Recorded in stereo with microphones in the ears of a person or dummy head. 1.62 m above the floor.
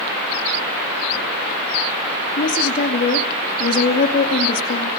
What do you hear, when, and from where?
2.4 s a woman speaking: 40° left (ahead or behind), 2.5 m